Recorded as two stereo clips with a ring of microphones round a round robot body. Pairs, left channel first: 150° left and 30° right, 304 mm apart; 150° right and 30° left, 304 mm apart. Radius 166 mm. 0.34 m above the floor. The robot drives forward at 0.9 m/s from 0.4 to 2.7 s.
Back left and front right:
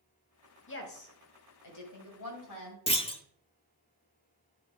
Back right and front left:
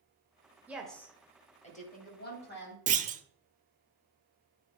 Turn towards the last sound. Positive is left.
turn(degrees=85)